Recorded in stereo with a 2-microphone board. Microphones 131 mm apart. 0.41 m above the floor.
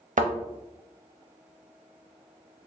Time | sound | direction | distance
0.2 | a thud | 80° right | 0.7 m